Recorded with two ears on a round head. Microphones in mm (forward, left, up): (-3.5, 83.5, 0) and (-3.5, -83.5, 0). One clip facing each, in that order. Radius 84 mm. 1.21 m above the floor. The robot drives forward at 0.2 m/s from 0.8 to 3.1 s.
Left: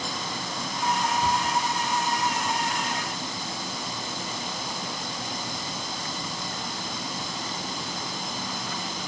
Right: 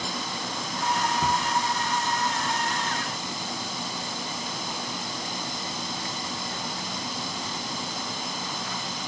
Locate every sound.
1.2 s a cupboard door: 50° right (ahead or behind), 0.6 m; by 1.5 s 55° right (ahead or behind), 0.6 m